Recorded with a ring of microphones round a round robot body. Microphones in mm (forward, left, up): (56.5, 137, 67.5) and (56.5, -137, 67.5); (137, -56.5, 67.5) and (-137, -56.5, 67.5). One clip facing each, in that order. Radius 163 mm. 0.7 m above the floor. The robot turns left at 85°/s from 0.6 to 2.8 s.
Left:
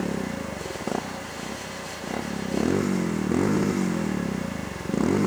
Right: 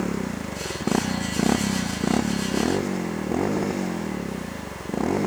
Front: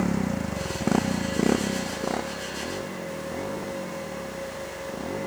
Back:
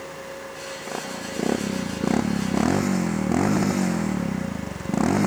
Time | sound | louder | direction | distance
0.0 | a motorcycle | right 1 dB, front 10 dB | 5° right | ?